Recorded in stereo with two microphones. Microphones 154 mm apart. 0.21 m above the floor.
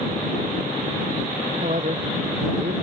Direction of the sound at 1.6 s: 55° right (ahead or behind).